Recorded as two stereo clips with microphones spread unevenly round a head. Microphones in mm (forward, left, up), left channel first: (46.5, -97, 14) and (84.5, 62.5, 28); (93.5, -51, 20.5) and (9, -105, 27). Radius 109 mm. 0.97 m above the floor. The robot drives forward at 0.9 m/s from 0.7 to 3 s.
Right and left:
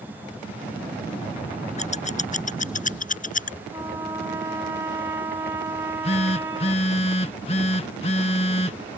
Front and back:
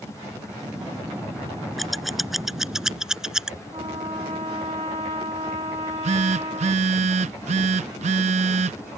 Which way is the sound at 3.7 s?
150° left.